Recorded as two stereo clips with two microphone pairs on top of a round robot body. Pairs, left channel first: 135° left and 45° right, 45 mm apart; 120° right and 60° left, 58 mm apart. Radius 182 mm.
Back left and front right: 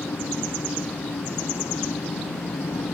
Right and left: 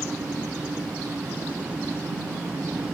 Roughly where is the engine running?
Behind left.